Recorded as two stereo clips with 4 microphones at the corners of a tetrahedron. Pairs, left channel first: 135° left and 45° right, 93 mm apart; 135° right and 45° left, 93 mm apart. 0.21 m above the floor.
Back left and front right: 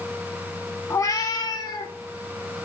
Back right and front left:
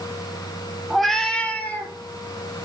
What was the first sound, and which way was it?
A cat meowing, 130° left.